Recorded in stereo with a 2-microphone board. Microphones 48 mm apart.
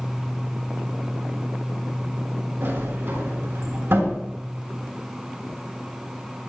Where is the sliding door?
60° right (ahead or behind), 5.5 m.